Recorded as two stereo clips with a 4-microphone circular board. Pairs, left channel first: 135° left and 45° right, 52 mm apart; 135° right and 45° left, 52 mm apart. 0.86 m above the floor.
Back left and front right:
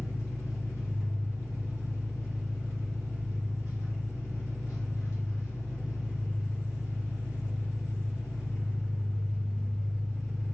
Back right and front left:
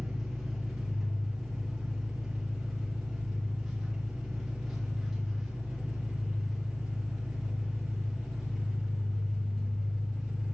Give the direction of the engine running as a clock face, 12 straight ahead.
8 o'clock.